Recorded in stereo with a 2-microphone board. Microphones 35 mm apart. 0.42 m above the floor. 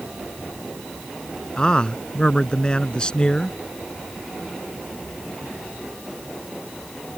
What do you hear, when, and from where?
1.6 s a man speaking: 25° left (ahead or behind)